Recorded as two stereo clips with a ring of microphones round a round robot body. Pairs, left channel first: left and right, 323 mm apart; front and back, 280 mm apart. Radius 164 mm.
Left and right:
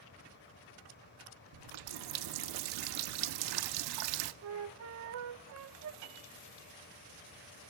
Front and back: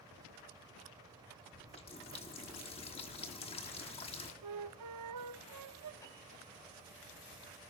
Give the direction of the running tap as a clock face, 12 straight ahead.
2 o'clock.